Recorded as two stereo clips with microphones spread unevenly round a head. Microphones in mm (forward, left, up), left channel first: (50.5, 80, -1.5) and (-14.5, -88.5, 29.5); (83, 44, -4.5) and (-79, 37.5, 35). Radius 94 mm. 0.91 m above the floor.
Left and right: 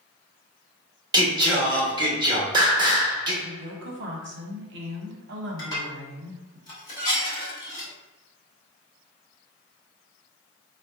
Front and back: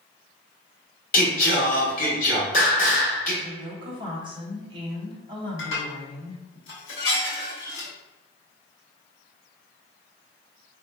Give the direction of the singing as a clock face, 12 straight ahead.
2 o'clock.